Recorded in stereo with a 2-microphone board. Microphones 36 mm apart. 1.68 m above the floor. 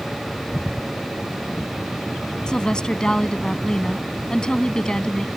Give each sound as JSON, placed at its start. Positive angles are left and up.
{"t": 2.5, "sound": "a woman speaking", "side_deg": 20}